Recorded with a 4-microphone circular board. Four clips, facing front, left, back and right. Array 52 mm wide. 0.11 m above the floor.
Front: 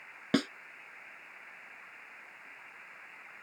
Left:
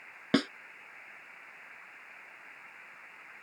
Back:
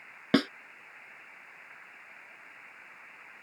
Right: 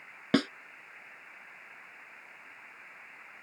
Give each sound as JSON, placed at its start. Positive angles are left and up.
{"t": 0.3, "sound": "a snare drum", "azimuth_deg": 180}